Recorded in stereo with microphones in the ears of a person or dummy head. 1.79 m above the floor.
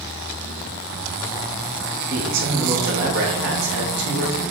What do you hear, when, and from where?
2.1 s a man speaking: 75° right (ahead or behind), 3 m